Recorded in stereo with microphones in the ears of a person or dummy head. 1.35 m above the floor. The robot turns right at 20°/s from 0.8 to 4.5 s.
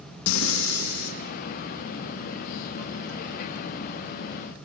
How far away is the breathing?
About 1.8 m.